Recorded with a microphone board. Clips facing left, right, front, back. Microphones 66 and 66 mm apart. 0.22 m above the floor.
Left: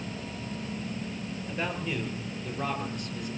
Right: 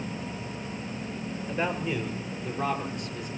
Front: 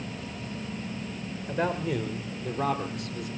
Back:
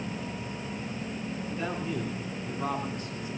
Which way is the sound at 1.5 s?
10° right.